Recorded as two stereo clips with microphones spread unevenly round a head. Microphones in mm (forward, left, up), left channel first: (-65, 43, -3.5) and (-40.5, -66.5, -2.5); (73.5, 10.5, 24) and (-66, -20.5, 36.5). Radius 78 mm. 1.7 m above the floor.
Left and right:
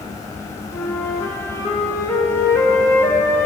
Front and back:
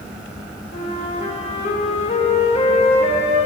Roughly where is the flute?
Ahead left.